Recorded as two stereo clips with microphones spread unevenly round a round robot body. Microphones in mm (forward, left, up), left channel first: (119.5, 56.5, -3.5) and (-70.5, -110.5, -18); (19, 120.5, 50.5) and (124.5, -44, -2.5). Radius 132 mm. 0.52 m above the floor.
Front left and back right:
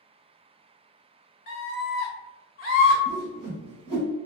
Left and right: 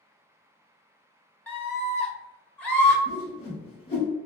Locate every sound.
1.5 s a scream: 20° left, 0.8 m
3.0 s a whoosh: 165° right, 1.8 m